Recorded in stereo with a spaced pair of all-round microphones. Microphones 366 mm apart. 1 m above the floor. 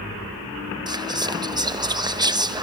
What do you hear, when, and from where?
0.9 s whispering: 10° right (ahead or behind), 0.8 m